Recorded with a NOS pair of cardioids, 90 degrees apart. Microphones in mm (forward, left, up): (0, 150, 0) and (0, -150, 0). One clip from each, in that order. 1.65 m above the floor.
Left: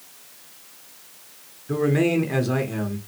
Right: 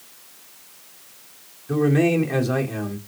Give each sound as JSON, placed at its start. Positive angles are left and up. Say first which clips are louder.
{"t": 1.7, "sound": "a man speaking", "louder": "right 2 dB", "azimuth_deg": 0, "distance_m": 0.8}